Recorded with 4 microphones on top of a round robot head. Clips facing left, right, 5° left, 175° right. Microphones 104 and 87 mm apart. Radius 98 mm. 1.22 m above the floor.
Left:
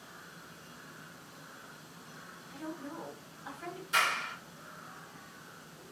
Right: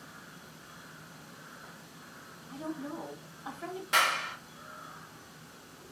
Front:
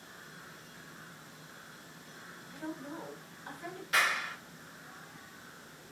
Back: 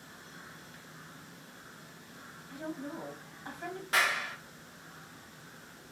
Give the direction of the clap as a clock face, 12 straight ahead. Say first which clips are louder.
Right 3 dB, even; 4 o'clock.